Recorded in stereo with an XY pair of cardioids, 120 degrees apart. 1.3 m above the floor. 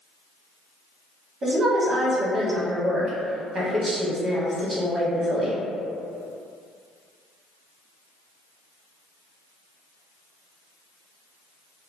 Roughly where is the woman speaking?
Ahead right.